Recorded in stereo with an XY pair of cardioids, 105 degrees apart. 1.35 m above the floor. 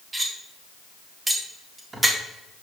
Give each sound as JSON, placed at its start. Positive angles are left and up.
{"t": 0.1, "sound": "cutlery clinking", "azimuth_deg": -25, "distance_m": 1.8}